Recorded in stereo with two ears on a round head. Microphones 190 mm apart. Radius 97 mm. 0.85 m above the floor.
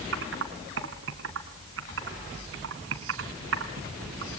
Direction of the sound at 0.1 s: 65° right (ahead or behind).